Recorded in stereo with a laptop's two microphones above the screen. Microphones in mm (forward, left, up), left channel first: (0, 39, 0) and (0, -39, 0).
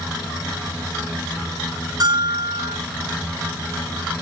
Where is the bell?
55° right (ahead or behind), 4 m.